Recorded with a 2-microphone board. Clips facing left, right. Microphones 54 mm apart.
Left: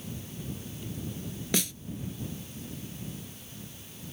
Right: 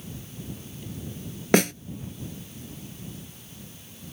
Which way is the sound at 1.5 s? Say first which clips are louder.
Right 12 dB; 60° right (ahead or behind).